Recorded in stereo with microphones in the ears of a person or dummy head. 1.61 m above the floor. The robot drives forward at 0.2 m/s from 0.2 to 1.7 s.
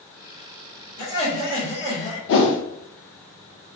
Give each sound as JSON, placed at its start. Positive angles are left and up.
{"t": 1.0, "sound": "laughter", "side_deg": 80, "distance_m": 1.4}
{"t": 2.3, "sound": "a whoosh", "side_deg": 60, "distance_m": 0.6}